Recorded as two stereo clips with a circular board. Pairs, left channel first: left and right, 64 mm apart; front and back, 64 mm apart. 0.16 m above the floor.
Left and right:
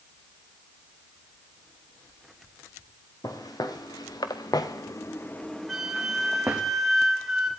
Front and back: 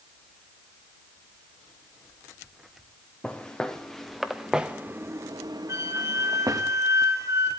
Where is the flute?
Straight behind, 1.8 m.